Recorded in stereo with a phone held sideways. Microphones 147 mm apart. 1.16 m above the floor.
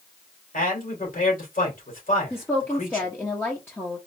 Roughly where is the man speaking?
Left.